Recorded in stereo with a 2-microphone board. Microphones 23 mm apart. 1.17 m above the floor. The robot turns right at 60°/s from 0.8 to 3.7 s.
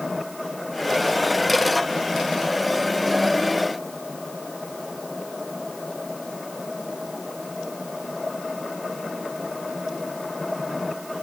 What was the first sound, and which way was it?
Only background noise.